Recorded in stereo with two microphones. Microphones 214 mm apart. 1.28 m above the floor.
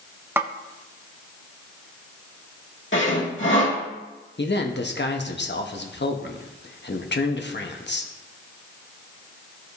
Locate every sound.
0.4 s a snare drum: 10° right (ahead or behind), 0.6 m
2.9 s sawing: 65° left (ahead or behind), 1.9 m
4.4 s a man speaking: 55° left (ahead or behind), 1.0 m